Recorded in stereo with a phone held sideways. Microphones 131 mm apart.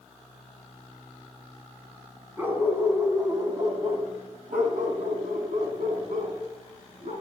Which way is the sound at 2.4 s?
15° right (ahead or behind).